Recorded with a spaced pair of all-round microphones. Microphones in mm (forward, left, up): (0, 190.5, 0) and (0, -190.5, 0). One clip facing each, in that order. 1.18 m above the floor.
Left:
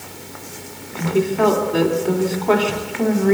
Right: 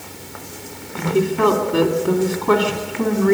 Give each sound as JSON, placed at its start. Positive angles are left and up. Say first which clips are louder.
{"t": 0.9, "sound": "a woman speaking", "louder": "even", "side_deg": -20, "distance_m": 2.5}